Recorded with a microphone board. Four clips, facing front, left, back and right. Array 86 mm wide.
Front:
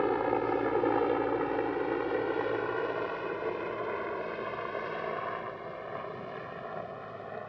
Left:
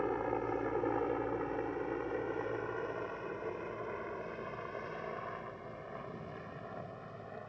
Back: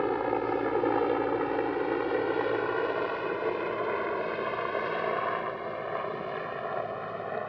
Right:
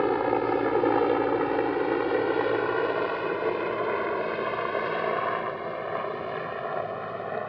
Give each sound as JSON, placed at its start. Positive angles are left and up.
{"t": 0.0, "sound": "a helicopter", "azimuth_deg": -90}